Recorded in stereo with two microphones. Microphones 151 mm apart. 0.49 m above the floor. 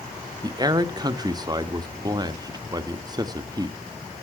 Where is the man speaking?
25° right (ahead or behind), 0.7 m.